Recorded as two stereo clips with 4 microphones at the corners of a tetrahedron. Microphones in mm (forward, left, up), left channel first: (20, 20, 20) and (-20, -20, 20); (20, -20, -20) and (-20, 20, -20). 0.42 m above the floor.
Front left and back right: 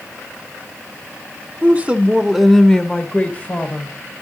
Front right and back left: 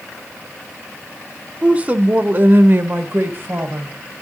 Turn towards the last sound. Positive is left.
turn(degrees=95)